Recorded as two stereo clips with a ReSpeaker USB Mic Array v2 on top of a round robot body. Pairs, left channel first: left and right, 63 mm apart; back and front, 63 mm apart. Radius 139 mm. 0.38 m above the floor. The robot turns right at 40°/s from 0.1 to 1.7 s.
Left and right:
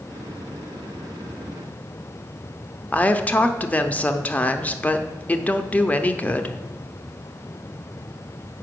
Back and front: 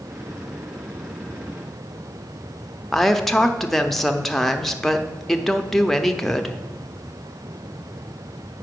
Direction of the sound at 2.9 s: 100° left.